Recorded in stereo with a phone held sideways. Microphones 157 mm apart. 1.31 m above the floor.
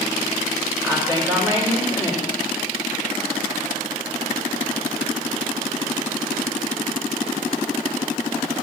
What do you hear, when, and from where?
0.8 s a woman speaking: 15° left (ahead or behind), 3.5 m